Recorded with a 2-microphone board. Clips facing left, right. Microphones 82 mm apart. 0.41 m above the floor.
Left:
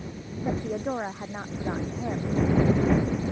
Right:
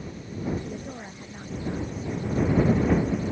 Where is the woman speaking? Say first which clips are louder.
Left 4 dB; 70° left (ahead or behind).